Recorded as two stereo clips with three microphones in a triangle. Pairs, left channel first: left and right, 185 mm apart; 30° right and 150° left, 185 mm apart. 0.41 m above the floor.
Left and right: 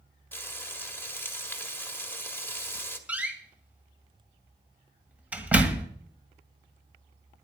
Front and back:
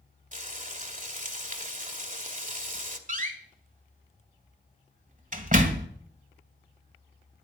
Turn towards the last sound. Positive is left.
turn(degrees=-170)